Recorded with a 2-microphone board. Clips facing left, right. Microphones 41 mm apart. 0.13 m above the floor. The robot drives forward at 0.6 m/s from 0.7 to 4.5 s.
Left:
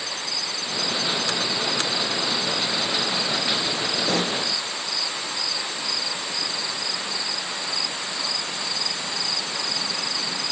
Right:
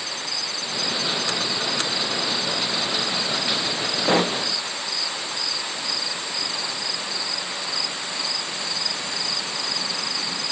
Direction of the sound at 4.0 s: 35° right (ahead or behind).